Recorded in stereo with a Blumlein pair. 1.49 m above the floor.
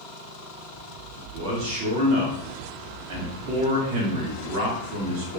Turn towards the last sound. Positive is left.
turn(degrees=-45)